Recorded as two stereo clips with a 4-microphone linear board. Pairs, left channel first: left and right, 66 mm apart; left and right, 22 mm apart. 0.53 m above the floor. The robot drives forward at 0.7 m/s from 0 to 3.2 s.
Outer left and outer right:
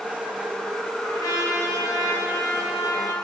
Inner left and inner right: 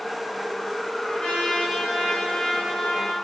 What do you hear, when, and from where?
1.0 s a trumpet: 75° left (ahead or behind), 3 m; by 3.1 s 55° left (ahead or behind), 3.5 m